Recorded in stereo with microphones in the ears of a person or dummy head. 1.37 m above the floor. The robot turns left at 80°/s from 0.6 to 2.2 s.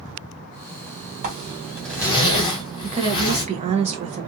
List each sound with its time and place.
1.2 s a zipper: 135° right, 1.2 m; by 3.4 s 145° left, 1.2 m
2.8 s a woman speaking: 35° right (ahead or behind), 0.7 m